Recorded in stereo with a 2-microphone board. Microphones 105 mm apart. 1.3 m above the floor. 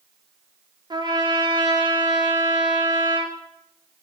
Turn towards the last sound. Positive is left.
turn(degrees=-45)  # may be behind; listen again after turning